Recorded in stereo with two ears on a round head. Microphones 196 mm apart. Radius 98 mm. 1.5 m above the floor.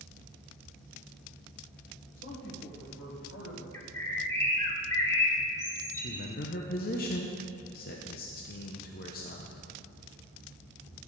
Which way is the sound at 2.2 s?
40° left (ahead or behind).